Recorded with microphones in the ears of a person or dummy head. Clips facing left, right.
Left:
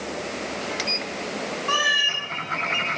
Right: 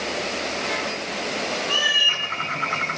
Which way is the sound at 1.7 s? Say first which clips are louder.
Even; 65° left (ahead or behind).